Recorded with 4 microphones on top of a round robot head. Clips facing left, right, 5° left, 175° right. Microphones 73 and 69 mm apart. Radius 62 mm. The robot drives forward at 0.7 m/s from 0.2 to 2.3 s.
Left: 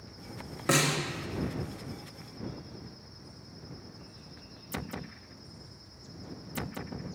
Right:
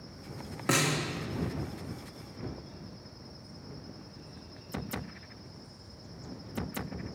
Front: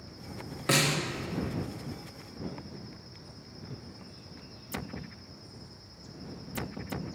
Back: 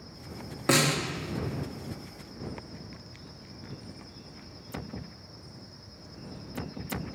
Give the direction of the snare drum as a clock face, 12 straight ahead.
6 o'clock.